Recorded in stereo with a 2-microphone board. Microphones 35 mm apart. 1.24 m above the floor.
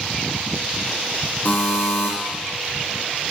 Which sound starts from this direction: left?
A buzzer, at 1.4 s.